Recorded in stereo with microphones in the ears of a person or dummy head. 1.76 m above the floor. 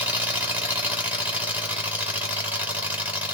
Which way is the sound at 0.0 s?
10° right (ahead or behind).